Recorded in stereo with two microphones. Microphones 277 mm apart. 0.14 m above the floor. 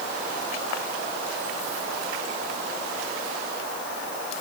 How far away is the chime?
I don't hear a chime.